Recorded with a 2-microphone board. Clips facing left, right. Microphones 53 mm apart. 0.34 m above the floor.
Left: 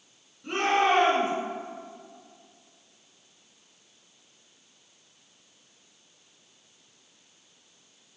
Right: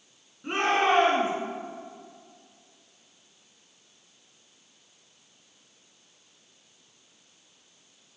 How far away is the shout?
About 4 m.